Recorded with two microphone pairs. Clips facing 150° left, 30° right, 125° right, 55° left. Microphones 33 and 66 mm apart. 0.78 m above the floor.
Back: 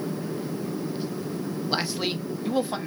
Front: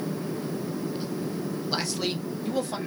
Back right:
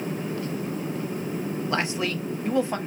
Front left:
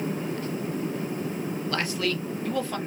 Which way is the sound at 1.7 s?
165° right.